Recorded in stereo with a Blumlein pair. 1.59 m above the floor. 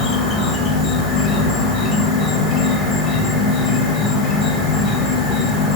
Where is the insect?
25° left, 2 m.